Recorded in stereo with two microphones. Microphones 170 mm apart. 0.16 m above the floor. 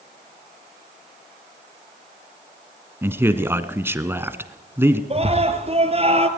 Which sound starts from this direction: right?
A scream, at 5.1 s.